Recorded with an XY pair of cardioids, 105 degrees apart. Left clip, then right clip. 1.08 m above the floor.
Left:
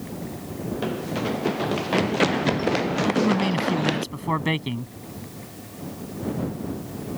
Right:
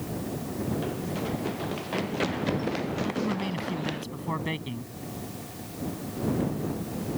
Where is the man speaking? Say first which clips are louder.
Left 8 dB; 50° left.